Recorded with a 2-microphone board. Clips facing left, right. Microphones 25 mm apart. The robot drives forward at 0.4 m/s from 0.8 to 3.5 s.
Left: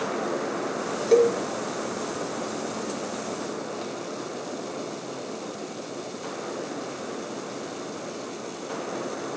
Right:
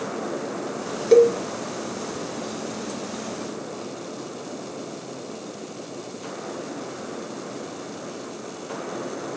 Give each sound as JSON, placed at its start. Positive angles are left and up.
{"t": 1.1, "sound": "a cowbell", "side_deg": -20, "distance_m": 0.8}